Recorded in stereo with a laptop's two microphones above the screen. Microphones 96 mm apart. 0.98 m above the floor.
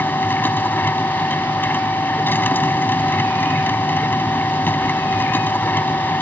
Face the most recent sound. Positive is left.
turn(degrees=20)  # may be behind; listen again after turning